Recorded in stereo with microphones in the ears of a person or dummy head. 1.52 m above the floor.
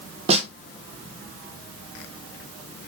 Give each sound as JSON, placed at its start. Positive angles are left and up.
{"t": 0.3, "sound": "a snare drum", "side_deg": -40, "distance_m": 1.0}